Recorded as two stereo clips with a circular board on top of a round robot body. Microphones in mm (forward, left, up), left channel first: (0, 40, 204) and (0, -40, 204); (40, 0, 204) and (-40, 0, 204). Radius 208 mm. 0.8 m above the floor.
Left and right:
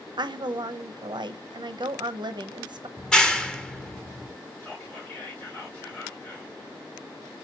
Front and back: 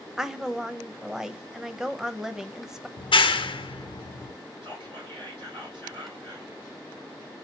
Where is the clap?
10° left, 0.6 m.